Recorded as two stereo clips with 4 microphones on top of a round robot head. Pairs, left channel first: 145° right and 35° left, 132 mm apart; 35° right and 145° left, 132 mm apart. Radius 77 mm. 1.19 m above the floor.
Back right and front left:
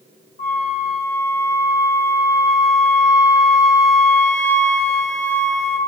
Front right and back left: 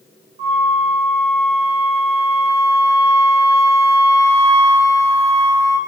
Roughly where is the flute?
Behind.